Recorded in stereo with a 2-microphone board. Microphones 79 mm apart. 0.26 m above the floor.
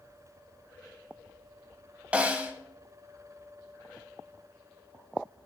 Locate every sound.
2.1 s a snare drum: 20° right (ahead or behind), 0.8 m